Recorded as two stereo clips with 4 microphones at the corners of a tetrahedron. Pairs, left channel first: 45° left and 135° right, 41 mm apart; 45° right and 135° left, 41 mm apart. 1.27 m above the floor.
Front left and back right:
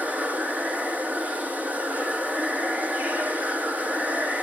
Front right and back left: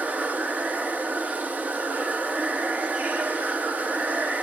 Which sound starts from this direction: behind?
Running water, at 0.0 s.